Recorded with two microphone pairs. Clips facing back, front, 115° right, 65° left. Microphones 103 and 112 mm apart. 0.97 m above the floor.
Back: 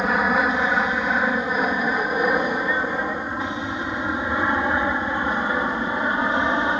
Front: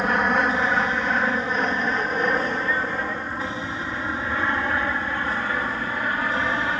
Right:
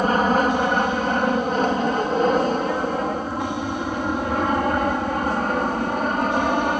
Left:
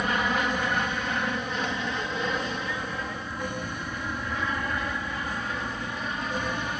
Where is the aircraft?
95° right; by 6.8 s 120° right.